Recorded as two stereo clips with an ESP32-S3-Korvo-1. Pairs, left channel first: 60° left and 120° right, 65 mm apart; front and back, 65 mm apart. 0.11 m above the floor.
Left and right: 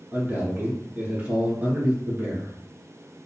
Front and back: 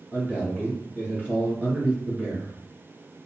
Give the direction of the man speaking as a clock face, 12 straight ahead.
5 o'clock.